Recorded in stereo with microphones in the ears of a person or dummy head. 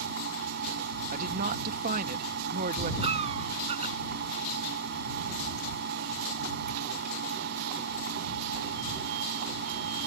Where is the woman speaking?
55° right (ahead or behind).